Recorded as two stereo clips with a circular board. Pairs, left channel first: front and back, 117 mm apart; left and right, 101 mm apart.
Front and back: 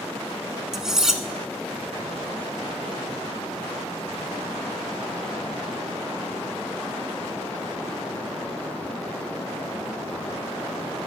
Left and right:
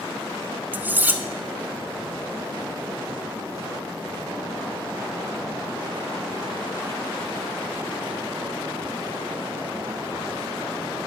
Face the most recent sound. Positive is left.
turn(degrees=-105)